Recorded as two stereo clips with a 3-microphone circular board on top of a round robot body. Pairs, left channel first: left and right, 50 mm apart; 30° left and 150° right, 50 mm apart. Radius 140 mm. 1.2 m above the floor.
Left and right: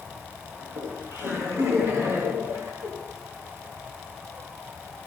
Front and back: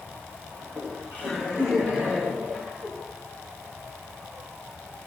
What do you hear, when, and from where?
0.6 s laughter: 105° right, 7 m; by 2.9 s 95° right, 5.5 m